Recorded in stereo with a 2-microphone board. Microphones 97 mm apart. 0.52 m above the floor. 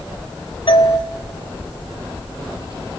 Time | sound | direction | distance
0.7 | a doorbell | 65° left (ahead or behind) | 2.5 m